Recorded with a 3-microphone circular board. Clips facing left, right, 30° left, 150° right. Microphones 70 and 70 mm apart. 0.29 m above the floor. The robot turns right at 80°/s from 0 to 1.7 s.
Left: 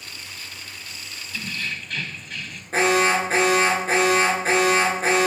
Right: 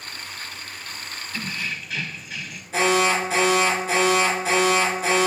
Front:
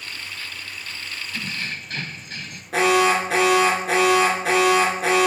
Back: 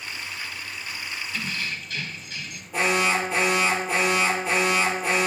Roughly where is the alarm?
Ahead left.